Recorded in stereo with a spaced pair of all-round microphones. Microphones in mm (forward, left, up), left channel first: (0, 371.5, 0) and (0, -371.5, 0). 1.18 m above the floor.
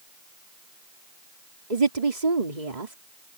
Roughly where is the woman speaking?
Right.